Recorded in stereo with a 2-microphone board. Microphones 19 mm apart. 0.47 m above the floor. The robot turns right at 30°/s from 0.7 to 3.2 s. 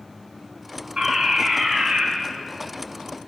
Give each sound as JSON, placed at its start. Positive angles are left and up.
{"t": 1.0, "sound": "a fire alarm", "azimuth_deg": -100, "distance_m": 7.0}